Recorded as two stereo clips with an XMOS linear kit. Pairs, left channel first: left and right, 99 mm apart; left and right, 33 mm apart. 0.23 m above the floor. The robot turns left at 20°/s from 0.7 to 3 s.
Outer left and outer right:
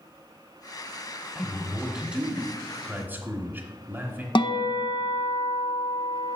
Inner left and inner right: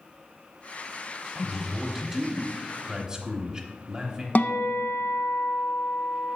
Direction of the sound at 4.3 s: 60° left (ahead or behind).